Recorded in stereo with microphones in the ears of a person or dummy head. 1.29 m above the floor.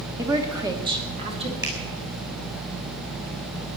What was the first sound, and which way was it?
A woman speaking, 10° right (ahead or behind).